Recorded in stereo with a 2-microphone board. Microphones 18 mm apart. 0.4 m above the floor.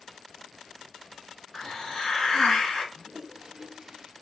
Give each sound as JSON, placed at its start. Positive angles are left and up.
{"t": 1.5, "sound": "a hiss", "side_deg": 50, "distance_m": 1.2}
{"t": 3.0, "sound": "a toilet flushing", "side_deg": -40, "distance_m": 0.6}